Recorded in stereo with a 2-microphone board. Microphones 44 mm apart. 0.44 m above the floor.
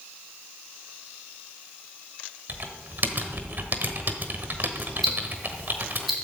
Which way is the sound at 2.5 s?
50° right (ahead or behind).